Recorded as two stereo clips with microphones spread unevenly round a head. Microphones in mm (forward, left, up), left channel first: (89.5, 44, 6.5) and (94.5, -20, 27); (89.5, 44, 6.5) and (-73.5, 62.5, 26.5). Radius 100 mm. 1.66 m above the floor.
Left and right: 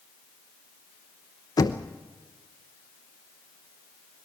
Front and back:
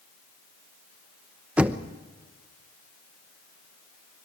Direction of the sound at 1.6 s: 105° left.